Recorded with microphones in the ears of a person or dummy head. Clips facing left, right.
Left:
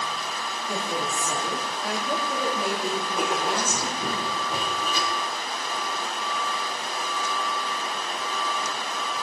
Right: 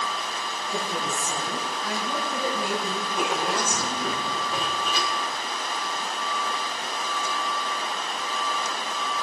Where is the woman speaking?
60° left (ahead or behind), 3.5 m; by 4.2 s 35° left (ahead or behind), 4.5 m.